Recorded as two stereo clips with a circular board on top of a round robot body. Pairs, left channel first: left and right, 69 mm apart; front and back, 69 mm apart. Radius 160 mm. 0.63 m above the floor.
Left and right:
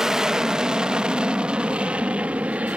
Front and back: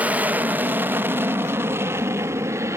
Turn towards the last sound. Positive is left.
turn(degrees=-155)